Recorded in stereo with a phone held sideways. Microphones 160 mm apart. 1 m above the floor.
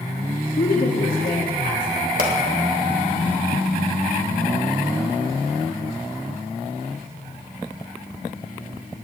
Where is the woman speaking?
65° left (ahead or behind), 1.9 m.